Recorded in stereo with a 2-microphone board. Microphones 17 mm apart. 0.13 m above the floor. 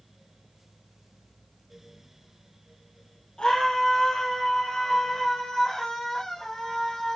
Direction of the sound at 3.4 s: 35° left (ahead or behind).